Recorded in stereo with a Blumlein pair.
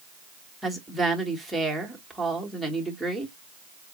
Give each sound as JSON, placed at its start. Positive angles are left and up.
{"t": 0.6, "sound": "a woman speaking", "azimuth_deg": 0, "distance_m": 1.7}